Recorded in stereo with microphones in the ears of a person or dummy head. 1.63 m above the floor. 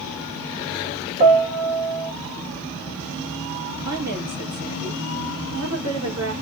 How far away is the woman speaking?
About 2.5 m.